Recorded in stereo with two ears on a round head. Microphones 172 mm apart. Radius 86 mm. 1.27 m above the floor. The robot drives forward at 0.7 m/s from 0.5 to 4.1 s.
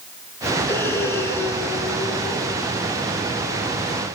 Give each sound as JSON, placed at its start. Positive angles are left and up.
{"t": 0.7, "sound": "breathing", "side_deg": 10, "distance_m": 4.0}